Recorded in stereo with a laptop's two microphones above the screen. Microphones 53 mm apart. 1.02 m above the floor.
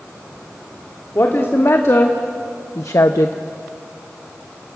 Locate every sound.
1.1 s a woman speaking: 50° left (ahead or behind), 2 m; by 3.4 s 70° left (ahead or behind), 0.6 m